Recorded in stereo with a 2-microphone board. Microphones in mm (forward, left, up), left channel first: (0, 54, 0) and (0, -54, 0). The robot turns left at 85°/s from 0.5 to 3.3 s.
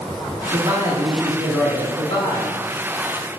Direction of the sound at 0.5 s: 125° right.